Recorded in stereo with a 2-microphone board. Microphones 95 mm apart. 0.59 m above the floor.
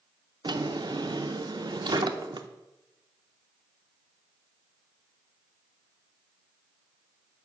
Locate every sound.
0.4 s a drawer: 55° right (ahead or behind), 0.5 m